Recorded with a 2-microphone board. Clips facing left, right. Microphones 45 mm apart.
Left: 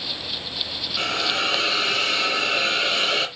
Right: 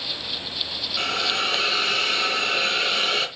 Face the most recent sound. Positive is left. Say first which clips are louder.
# left 1 dB
turn(degrees=0)  # may be behind; listen again after turning